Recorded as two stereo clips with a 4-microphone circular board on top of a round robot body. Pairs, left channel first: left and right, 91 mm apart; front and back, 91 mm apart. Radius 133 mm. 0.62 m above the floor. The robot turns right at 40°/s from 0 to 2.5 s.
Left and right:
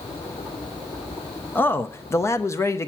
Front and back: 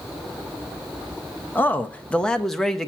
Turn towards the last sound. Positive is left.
turn(degrees=80)